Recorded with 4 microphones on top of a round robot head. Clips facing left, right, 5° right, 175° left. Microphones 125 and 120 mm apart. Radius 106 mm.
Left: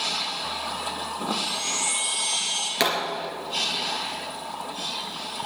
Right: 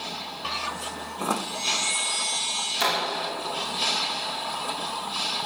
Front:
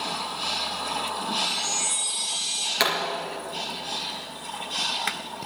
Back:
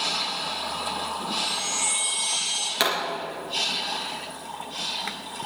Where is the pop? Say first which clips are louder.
Left 2 dB, even; 95° left, 3.5 m.